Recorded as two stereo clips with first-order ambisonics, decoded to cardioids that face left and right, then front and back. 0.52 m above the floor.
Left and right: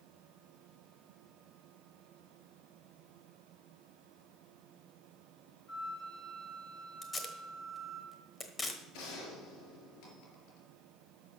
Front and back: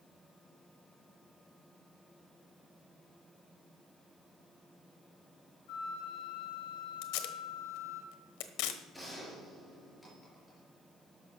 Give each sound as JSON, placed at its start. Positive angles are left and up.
{"t": 5.7, "sound": "a flute", "azimuth_deg": 20, "distance_m": 3.0}
{"t": 7.0, "sound": "tape being pulled", "azimuth_deg": 15, "distance_m": 1.1}
{"t": 8.9, "sound": "a gunshot", "azimuth_deg": 90, "distance_m": 4.0}